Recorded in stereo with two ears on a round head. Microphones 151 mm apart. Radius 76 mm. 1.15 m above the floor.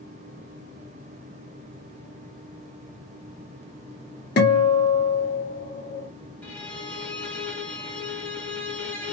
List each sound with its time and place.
4.4 s a guitar: 55° left (ahead or behind), 1.3 m
6.4 s a violin: 10° left (ahead or behind), 1.1 m